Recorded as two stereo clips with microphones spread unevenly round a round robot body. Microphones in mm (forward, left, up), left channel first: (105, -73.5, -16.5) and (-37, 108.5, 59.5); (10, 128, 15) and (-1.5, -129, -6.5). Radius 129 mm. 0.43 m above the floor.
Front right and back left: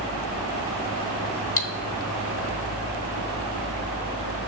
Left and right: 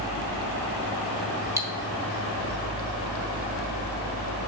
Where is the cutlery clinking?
15° right, 1.0 m.